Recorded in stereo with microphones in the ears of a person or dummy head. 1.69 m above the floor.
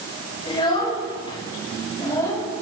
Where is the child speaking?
30° left (ahead or behind), 6 m; by 2.4 s 20° left (ahead or behind), 6 m.